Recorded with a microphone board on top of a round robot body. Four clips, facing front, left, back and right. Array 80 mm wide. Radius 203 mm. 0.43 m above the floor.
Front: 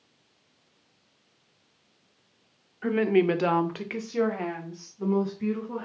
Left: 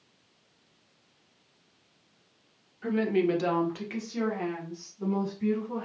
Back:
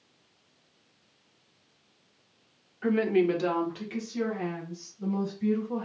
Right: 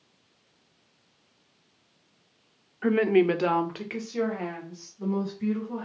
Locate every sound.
2.8 s a woman speaking: 85° right, 0.9 m; by 5.8 s straight ahead, 3 m